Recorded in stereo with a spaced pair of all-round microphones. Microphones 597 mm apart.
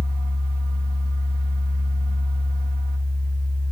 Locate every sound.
0.0 s a fan: 35° right (ahead or behind), 1.1 m